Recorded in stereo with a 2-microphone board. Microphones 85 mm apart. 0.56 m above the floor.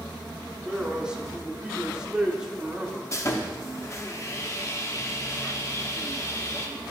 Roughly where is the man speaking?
Centre.